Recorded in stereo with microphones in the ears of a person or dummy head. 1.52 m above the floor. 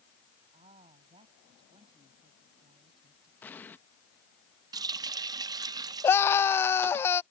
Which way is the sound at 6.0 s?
15° left (ahead or behind).